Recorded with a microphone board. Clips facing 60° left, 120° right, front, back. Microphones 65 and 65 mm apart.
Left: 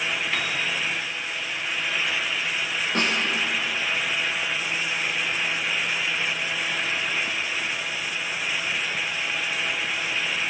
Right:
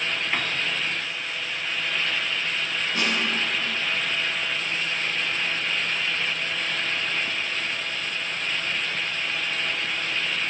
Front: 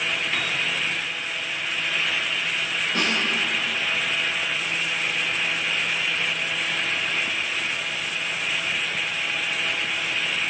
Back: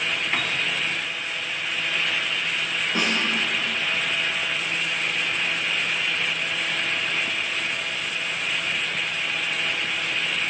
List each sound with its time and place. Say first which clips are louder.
0.3 s a piano: even, back 1 dB; 175° right, 1.8 m
3.0 s a snare drum: left 2 dB, even; 105° left, 6 m